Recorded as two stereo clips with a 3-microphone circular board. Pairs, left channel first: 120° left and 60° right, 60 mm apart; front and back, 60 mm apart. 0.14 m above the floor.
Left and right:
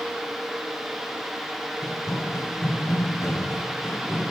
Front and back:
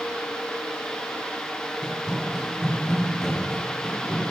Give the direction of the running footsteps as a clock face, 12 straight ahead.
8 o'clock.